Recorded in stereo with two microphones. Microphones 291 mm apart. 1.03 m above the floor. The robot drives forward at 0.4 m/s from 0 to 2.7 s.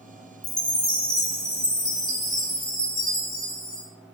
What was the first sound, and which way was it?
A chime, 5° left (ahead or behind).